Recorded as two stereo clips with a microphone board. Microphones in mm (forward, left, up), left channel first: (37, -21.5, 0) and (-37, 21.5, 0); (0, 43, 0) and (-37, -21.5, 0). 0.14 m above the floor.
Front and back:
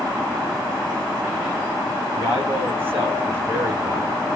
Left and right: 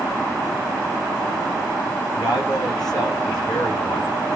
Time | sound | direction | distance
2.1 | a man speaking | 85° left | 7.5 m